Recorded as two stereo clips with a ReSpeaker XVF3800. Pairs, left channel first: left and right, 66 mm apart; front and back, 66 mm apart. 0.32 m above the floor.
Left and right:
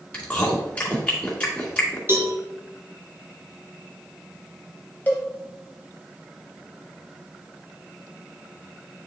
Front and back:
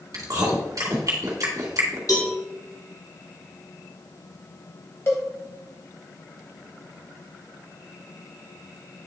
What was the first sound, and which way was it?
Chewing, 160° left.